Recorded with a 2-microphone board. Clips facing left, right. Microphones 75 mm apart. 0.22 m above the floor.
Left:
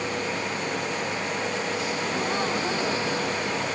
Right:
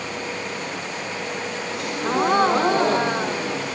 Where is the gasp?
55° right (ahead or behind).